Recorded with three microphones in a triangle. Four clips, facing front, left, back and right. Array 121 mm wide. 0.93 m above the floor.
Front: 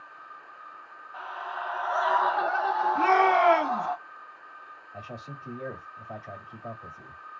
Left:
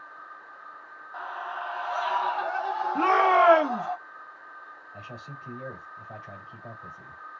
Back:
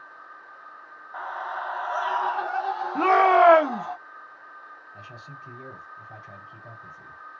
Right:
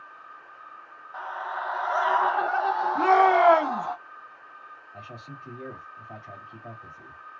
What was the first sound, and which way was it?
A scream, 175° right.